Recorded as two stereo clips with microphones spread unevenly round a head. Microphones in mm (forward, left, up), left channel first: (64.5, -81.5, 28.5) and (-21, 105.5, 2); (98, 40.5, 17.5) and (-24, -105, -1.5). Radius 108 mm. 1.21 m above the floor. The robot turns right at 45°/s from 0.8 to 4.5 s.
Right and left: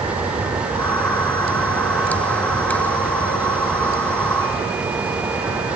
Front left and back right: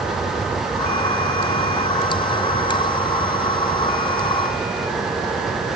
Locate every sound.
Only background noise.